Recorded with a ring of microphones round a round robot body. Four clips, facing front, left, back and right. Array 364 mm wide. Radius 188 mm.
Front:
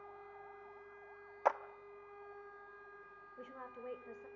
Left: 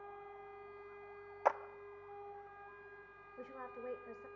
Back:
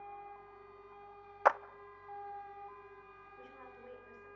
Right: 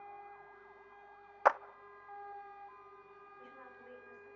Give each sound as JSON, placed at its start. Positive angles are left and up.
{"t": 1.4, "sound": "a clap", "azimuth_deg": -135, "distance_m": 0.6}
{"t": 3.4, "sound": "a woman speaking", "azimuth_deg": 60, "distance_m": 3.5}